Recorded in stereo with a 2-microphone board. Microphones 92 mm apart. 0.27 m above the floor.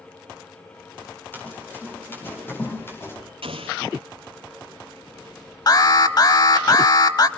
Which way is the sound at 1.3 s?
20° left (ahead or behind).